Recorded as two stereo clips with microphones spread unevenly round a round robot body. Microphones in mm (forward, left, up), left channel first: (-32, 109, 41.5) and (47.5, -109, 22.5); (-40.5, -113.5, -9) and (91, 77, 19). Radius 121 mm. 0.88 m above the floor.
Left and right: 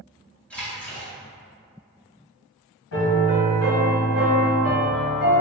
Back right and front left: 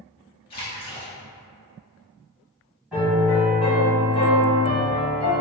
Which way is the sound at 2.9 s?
140° left.